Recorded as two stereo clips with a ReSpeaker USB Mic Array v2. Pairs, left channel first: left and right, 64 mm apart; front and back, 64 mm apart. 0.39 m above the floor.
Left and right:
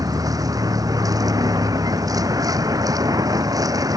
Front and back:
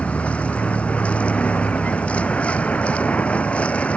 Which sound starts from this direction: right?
A vehicle, at 0.0 s.